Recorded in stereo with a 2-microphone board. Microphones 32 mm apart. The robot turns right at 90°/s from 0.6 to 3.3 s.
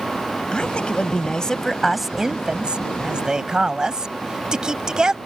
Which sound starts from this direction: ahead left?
A woman speaking, at 0.5 s.